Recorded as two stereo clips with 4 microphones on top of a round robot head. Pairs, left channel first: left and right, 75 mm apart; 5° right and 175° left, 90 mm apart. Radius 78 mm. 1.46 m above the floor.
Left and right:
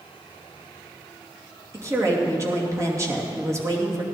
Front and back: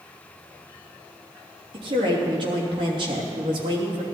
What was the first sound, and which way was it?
A woman speaking, 140° right.